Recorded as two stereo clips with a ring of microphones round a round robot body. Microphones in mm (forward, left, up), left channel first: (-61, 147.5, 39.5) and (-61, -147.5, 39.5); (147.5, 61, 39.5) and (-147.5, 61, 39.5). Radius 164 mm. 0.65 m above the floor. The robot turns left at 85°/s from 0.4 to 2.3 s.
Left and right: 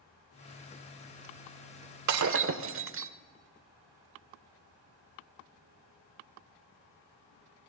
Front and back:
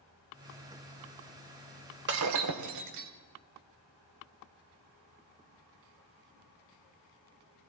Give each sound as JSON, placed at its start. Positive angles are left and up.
{"t": 2.1, "sound": "breaking glass", "azimuth_deg": -120, "distance_m": 0.9}